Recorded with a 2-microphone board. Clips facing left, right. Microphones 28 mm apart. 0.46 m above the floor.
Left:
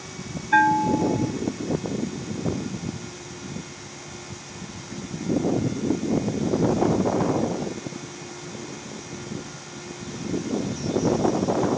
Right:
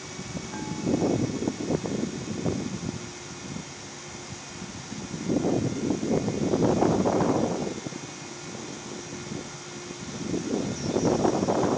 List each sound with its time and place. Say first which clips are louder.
0.5 s a bell: left 11 dB; 70° left (ahead or behind)